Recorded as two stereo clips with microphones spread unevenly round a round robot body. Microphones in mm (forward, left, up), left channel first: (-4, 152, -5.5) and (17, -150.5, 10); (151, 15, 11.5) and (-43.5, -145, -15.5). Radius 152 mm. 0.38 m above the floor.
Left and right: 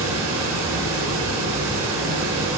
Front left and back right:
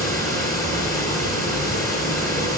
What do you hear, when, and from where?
0.0 s running water: 40° right, 3.5 m